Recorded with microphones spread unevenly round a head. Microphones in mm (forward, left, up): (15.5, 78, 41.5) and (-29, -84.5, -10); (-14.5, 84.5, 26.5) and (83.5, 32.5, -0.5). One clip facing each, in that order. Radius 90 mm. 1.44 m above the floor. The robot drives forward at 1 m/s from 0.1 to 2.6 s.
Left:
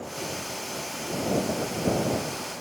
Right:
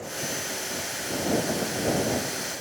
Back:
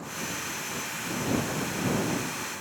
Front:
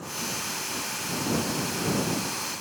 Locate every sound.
Only background noise.